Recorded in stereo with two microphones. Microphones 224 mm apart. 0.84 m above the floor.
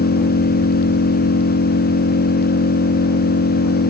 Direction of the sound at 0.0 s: 85° left.